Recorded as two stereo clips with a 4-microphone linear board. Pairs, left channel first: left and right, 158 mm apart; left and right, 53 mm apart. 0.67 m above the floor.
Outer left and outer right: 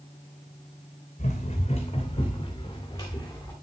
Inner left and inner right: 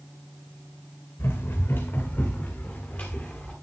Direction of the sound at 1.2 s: 45° left (ahead or behind).